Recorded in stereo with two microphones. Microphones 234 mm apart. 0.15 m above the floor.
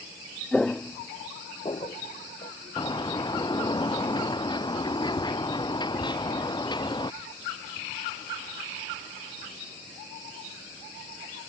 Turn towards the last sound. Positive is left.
turn(degrees=20)  # may be behind; listen again after turning